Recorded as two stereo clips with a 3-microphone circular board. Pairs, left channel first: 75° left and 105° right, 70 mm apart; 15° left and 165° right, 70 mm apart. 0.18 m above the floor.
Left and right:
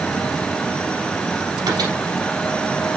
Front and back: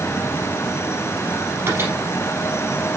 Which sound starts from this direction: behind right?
A microwave, at 1.7 s.